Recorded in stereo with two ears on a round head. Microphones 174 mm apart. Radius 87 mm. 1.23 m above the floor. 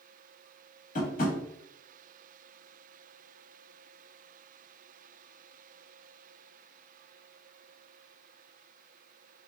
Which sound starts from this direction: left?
Tapping, at 0.9 s.